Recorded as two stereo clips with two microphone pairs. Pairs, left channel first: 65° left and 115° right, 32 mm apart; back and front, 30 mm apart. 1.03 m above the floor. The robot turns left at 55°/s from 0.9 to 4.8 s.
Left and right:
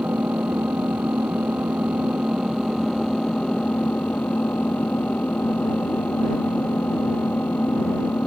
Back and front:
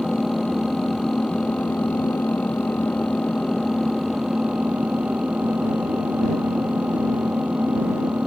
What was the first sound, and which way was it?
An engine running, 100° right.